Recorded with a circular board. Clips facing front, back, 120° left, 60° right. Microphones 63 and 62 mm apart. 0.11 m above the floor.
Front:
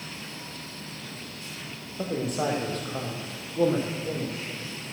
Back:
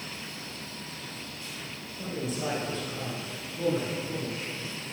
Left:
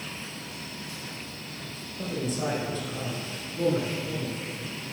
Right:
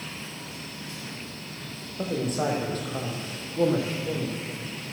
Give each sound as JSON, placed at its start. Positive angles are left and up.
{"t": 2.0, "sound": "a man speaking", "azimuth_deg": -20, "distance_m": 4.5}